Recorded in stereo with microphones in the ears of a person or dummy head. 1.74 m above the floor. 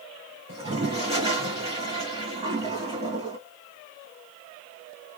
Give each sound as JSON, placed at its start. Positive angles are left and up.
{"t": 0.5, "sound": "a toilet flushing", "side_deg": -30, "distance_m": 1.6}